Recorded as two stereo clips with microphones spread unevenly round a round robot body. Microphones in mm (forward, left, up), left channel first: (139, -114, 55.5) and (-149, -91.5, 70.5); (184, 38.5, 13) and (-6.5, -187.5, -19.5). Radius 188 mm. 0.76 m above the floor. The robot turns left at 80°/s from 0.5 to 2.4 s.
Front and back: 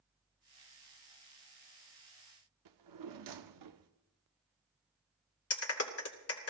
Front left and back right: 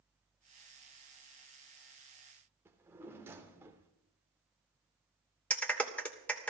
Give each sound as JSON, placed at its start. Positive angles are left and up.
{"t": 2.6, "sound": "a drawer", "azimuth_deg": 145, "distance_m": 0.7}
{"t": 5.5, "sound": "a clap", "azimuth_deg": -35, "distance_m": 2.5}